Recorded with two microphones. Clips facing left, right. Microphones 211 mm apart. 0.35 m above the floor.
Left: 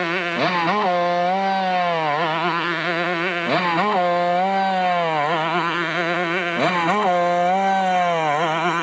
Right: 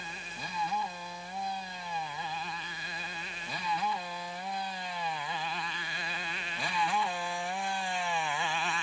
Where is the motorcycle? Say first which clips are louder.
Left 24 dB; 85° left; by 8.8 s 70° left (ahead or behind).